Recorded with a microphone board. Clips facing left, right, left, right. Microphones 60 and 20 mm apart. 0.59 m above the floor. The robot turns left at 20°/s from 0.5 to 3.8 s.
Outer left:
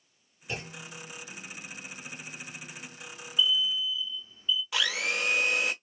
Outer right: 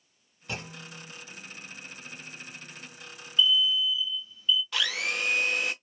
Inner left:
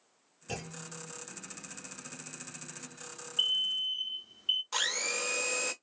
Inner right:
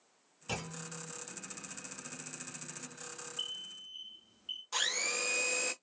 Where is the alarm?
30° left (ahead or behind), 0.5 m; by 4.6 s 35° left (ahead or behind), 0.5 m.